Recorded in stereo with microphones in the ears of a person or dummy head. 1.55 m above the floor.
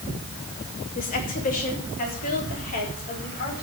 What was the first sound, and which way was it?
A woman speaking, 45° left (ahead or behind).